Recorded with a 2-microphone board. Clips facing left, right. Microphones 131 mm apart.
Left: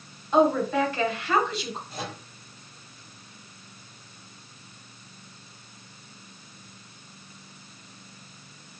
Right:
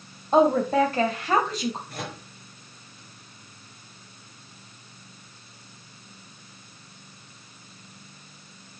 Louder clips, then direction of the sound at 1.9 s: Even; 65° right (ahead or behind).